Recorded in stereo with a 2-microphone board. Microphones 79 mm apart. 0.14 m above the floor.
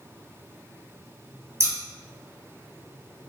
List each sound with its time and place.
1.6 s scissors: 35° right (ahead or behind), 1.9 m